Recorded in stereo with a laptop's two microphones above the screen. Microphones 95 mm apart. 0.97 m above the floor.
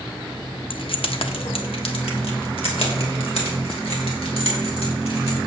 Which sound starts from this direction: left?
Keys jangling, at 0.7 s.